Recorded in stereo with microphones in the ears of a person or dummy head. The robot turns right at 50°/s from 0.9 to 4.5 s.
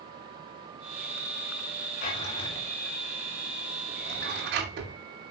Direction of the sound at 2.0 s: 45° left (ahead or behind).